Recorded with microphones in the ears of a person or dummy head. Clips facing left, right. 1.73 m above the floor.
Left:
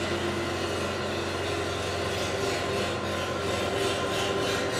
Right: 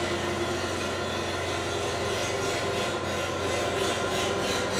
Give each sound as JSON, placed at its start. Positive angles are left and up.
{"t": 0.0, "sound": "an engine running", "side_deg": 15, "distance_m": 1.6}